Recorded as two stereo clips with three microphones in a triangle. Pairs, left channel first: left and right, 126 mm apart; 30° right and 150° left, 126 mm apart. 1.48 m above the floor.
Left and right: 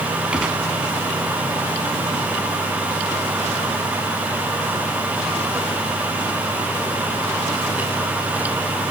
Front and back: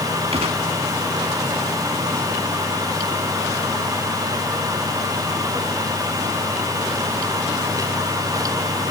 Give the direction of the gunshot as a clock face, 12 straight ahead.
6 o'clock.